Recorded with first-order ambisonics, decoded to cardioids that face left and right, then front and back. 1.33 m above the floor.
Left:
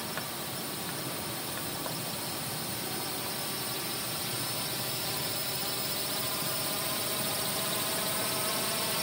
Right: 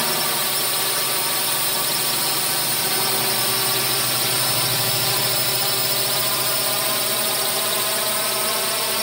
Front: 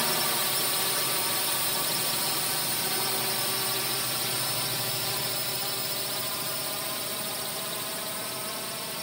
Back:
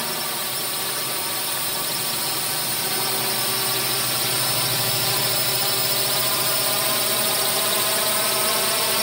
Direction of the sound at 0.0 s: 90° right.